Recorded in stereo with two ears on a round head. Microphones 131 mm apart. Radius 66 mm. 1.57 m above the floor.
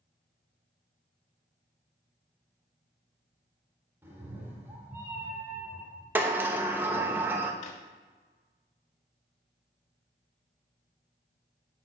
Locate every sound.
4.0 s a cat meowing: 15° right (ahead or behind), 1.6 m
6.2 s a sliding door: 15° right (ahead or behind), 0.8 m
7.6 s a drawer: 50° left (ahead or behind), 1.4 m